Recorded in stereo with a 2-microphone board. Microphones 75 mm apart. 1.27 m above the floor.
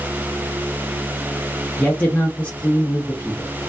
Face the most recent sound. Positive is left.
turn(degrees=20)  # may be behind; listen again after turning